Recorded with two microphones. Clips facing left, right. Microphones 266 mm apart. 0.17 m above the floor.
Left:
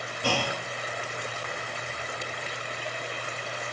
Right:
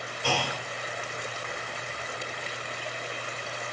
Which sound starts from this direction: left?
A clunk, at 0.2 s.